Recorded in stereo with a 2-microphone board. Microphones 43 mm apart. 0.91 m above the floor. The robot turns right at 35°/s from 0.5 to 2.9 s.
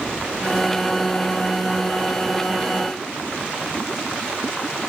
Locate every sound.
Only background noise.